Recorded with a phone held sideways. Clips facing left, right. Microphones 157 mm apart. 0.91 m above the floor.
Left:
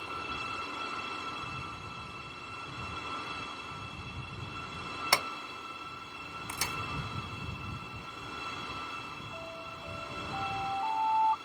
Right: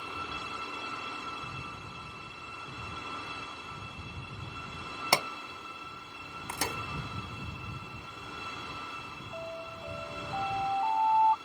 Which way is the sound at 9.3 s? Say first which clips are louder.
Right 6 dB; 25° right (ahead or behind).